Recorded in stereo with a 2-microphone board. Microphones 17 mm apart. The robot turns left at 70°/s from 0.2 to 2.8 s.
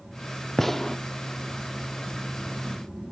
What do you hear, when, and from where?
0.6 s a gunshot: 25° left (ahead or behind), 0.6 m; by 1.0 s 30° left (ahead or behind), 0.6 m